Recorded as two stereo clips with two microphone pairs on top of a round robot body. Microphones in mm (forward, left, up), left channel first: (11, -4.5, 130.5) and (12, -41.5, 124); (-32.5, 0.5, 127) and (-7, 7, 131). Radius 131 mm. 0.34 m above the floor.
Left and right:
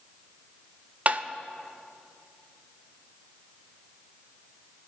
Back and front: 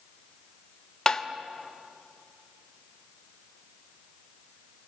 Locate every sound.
1.1 s tapping: 115° right, 1.0 m